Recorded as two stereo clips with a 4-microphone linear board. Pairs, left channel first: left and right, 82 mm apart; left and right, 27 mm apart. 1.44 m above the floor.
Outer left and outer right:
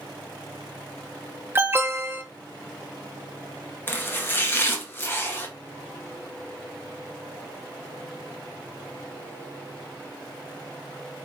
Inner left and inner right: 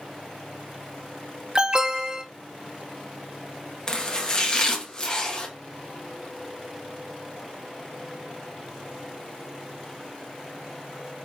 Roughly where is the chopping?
Left.